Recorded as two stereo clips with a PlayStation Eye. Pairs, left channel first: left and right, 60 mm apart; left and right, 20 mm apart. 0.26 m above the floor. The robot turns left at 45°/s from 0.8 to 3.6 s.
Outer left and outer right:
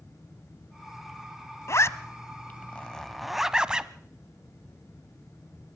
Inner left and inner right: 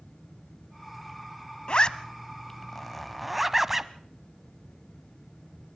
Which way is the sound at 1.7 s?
50° left (ahead or behind).